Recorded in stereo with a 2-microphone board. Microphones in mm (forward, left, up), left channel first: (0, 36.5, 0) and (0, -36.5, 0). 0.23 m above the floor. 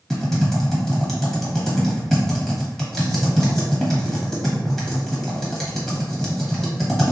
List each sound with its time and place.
0.1 s typing on a keyboard: 5° left (ahead or behind), 1.0 m